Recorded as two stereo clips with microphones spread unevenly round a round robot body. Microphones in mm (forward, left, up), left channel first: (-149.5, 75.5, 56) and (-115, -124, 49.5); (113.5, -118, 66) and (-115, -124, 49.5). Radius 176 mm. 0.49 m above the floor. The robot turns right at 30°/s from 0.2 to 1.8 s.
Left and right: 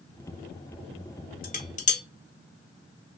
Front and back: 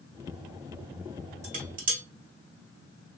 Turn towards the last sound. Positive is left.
turn(degrees=145)